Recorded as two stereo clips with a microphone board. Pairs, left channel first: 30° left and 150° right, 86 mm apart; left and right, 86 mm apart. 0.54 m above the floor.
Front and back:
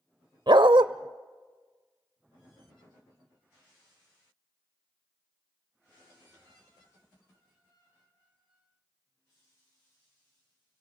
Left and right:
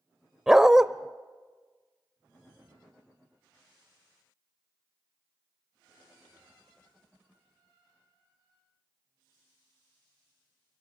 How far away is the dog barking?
About 0.6 m.